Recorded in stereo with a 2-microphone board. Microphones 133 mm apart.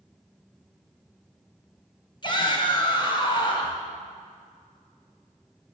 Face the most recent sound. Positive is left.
turn(degrees=35)  # may be behind; listen again after turning